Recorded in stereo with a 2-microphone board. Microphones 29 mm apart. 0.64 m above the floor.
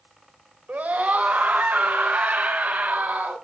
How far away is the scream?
About 3 m.